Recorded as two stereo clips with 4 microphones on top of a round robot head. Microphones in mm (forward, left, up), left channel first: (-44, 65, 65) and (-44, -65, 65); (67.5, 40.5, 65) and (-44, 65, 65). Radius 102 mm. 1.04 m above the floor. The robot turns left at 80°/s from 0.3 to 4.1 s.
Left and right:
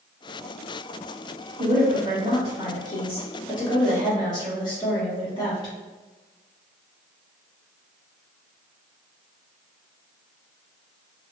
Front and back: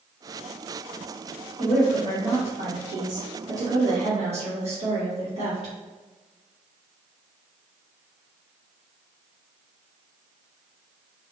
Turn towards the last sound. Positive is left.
turn(degrees=145)